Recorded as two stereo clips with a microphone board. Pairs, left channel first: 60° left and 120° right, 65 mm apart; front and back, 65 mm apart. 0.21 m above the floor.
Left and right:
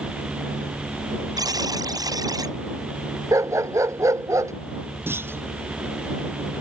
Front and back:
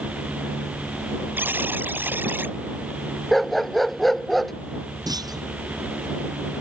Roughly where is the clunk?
Behind.